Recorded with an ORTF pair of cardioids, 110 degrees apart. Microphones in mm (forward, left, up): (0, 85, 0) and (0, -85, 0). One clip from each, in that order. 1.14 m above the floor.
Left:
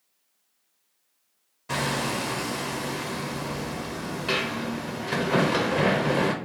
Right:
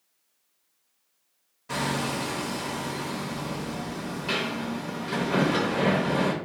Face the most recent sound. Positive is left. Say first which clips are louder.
# left 1 dB
turn(degrees=20)